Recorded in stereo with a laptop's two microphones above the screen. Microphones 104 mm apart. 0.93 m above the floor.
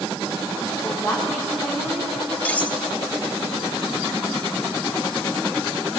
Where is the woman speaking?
5° left (ahead or behind), 7.5 m.